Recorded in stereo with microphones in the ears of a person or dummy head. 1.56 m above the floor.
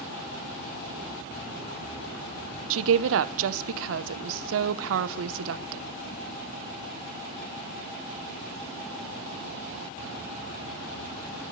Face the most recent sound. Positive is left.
turn(degrees=-80)